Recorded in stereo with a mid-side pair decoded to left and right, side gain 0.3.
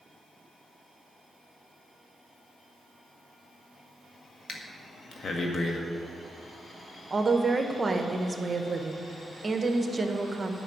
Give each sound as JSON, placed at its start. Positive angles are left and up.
{"t": 4.5, "sound": "breathing", "azimuth_deg": 60, "distance_m": 1.7}
{"t": 7.1, "sound": "a woman speaking", "azimuth_deg": -40, "distance_m": 1.3}